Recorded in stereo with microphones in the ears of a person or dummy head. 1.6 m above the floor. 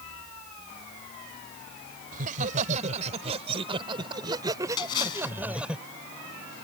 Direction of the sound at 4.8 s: 25° left (ahead or behind).